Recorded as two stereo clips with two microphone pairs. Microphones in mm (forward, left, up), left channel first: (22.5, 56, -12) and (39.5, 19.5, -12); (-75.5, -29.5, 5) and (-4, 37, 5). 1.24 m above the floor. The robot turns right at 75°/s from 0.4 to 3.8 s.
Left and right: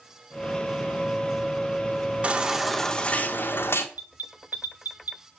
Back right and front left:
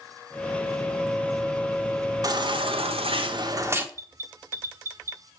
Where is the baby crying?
5° right, 1.7 m; by 3.9 s 110° left, 1.7 m.